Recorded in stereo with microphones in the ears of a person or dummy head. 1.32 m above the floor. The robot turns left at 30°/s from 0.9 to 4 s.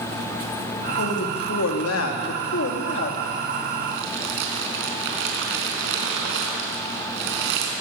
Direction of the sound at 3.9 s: 65° right (ahead or behind).